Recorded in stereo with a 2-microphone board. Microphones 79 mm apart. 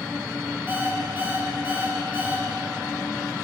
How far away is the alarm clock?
About 5.5 m.